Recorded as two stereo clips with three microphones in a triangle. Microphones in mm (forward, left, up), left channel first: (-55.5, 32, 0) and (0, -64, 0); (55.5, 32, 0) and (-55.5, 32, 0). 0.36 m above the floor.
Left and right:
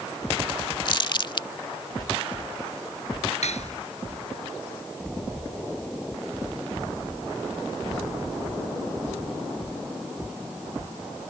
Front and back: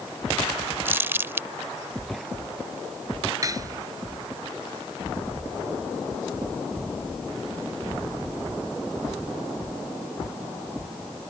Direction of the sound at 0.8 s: 120° left.